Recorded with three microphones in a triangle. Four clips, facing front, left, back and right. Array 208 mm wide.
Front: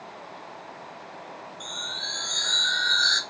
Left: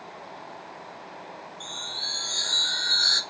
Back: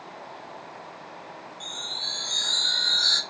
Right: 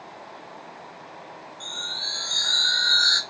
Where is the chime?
150° left, 0.9 m.